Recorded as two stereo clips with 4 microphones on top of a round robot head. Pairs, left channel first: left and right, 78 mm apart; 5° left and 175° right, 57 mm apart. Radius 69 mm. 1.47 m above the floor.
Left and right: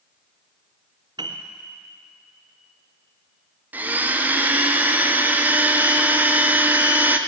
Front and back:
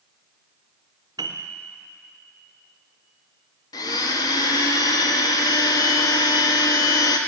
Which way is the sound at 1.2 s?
140° right.